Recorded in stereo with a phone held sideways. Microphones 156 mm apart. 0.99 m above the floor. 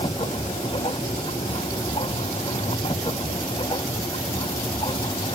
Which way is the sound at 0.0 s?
35° left (ahead or behind).